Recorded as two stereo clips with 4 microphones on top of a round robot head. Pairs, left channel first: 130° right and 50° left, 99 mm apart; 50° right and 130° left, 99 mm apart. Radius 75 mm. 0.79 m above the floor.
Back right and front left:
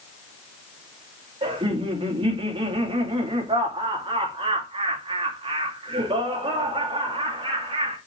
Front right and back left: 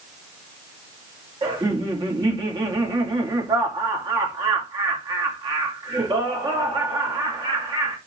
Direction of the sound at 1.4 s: 85° left.